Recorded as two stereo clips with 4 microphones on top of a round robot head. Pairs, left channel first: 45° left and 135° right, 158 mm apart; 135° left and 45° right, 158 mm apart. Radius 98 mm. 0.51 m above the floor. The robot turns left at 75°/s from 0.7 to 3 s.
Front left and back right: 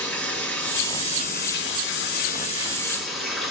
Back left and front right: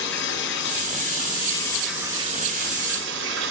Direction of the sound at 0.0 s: 125° left.